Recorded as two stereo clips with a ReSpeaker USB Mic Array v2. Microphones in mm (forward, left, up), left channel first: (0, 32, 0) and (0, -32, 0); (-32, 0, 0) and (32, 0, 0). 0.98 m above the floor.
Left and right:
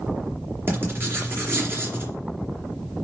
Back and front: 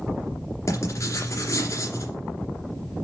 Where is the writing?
140° right, 2.5 m.